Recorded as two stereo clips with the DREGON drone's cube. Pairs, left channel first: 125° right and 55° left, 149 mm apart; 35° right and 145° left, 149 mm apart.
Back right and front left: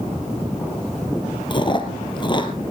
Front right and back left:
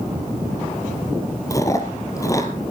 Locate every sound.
1.5 s chewing: 90° right, 1.7 m